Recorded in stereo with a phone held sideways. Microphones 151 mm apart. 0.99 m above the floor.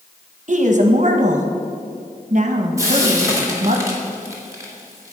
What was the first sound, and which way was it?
A woman speaking, 55° right (ahead or behind).